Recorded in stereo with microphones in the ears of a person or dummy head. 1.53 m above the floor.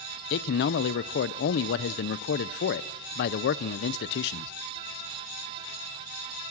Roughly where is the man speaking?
Left.